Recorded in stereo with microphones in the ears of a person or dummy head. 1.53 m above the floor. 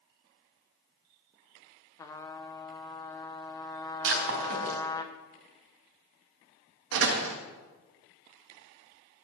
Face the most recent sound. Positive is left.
turn(degrees=-70)  # may be behind; listen again after turning